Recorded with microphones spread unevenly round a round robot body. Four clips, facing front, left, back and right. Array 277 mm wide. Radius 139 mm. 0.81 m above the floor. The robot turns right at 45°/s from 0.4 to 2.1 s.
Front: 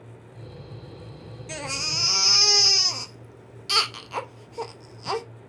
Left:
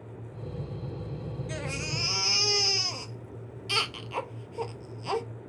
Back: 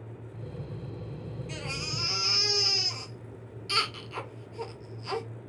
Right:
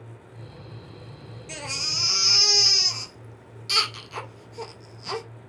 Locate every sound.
1.5 s a baby crying: 10° right, 0.7 m; by 5.2 s 20° left, 0.7 m